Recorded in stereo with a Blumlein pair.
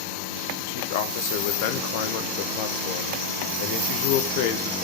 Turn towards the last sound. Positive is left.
turn(degrees=50)